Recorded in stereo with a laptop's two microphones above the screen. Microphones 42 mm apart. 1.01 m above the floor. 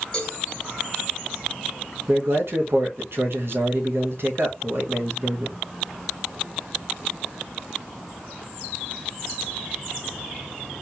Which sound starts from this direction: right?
A man speaking, at 2.1 s.